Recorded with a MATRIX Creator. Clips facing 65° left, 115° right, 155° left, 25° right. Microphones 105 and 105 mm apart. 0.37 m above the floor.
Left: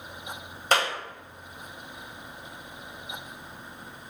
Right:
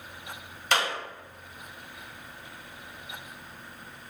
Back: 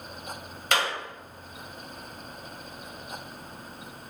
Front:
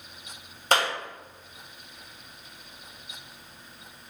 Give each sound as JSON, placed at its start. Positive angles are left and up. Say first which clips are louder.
{"t": 0.7, "sound": "a clap", "louder": "left 2 dB, front 3 dB", "azimuth_deg": 25, "distance_m": 1.4}